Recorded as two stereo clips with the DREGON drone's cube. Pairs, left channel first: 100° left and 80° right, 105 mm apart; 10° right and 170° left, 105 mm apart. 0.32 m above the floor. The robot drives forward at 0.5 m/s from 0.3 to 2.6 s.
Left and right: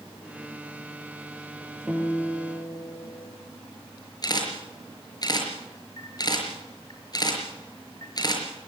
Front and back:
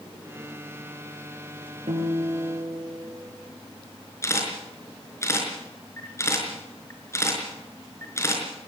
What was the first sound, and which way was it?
A guitar, 165° right.